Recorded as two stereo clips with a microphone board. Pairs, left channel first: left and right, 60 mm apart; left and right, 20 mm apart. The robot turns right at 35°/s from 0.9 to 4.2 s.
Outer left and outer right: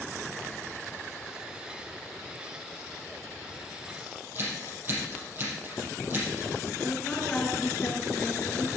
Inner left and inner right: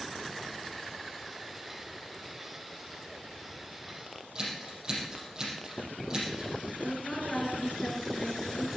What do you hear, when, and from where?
4.3 s scissors: 35° right (ahead or behind), 5.5 m
6.8 s a woman speaking: 20° left (ahead or behind), 3.5 m